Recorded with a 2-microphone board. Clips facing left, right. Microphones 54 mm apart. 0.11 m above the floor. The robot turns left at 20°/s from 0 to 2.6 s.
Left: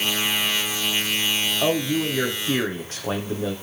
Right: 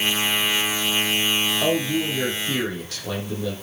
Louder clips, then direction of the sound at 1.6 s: Left 3 dB; 15° left (ahead or behind).